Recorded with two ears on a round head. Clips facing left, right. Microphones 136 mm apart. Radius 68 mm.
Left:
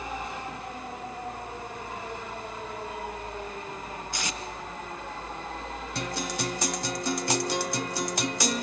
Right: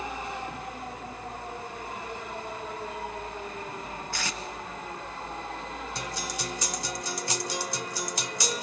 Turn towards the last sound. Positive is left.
turn(degrees=50)  # may be behind; listen again after turning